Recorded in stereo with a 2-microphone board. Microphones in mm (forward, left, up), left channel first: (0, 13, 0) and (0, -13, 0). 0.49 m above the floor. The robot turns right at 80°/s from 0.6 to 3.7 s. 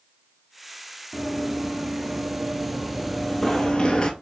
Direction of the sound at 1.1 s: 10° right (ahead or behind).